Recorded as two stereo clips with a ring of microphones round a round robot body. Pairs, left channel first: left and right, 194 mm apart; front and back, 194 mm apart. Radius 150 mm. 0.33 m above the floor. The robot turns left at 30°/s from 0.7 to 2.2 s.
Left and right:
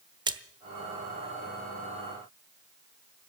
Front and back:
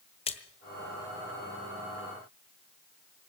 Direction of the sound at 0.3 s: 35° right.